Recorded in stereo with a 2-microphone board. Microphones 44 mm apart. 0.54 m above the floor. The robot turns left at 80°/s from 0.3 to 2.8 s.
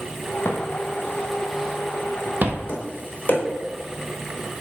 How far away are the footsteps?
About 1.1 m.